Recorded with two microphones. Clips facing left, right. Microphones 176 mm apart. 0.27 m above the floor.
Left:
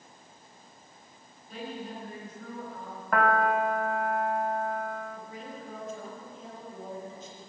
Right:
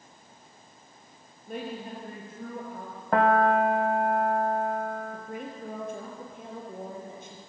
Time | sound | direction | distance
1.5 | a woman speaking | 55° right (ahead or behind) | 7 m
3.1 | a piano | 30° right (ahead or behind) | 1.3 m
5.1 | a woman speaking | 60° right (ahead or behind) | 6 m